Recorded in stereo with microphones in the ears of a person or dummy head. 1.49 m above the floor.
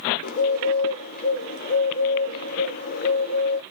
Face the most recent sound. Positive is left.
turn(degrees=45)  # may be behind; listen again after turning